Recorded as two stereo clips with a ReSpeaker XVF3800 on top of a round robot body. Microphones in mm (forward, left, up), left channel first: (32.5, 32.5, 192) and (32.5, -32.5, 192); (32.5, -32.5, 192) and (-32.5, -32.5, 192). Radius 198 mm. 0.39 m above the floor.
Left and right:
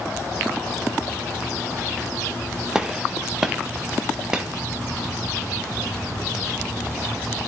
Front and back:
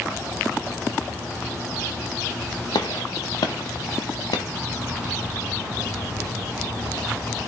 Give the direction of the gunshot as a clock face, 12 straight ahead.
12 o'clock.